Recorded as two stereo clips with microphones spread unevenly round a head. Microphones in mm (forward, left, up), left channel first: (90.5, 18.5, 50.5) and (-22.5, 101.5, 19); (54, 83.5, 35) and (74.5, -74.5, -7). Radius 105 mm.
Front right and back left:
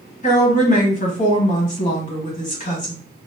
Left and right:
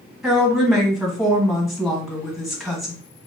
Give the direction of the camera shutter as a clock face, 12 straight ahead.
I don't hear a camera shutter.